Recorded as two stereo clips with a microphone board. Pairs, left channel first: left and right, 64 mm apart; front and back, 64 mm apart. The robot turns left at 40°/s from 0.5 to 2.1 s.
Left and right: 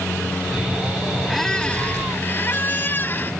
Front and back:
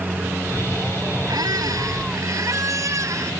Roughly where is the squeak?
Behind.